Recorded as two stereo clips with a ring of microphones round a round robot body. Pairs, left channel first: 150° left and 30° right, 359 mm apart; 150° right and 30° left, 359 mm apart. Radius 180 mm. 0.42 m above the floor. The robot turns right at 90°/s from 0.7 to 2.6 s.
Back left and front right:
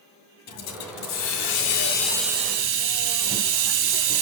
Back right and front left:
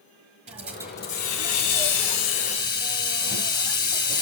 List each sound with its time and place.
0.5 s a hiss: 100° left, 1.8 m; by 4.2 s 85° right, 1.8 m